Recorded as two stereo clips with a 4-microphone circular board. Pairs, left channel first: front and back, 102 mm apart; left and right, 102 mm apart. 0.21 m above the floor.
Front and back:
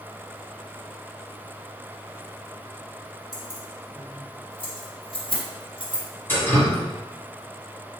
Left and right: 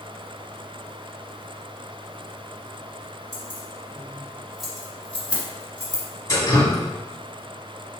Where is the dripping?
55° left, 1.5 m.